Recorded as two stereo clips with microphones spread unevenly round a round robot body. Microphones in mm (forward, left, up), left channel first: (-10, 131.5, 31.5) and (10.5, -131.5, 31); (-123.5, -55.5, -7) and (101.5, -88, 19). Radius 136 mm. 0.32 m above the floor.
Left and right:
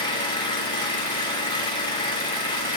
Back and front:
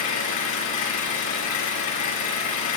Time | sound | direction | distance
0.0 | an engine running | 165° left | 8.5 m